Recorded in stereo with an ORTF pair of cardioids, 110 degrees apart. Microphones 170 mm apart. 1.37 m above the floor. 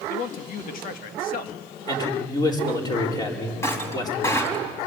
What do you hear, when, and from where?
0.1 s a man speaking: 60° left, 1.7 m
1.9 s a man speaking: 25° left, 4.5 m
3.6 s breaking glass: 15° left, 3.5 m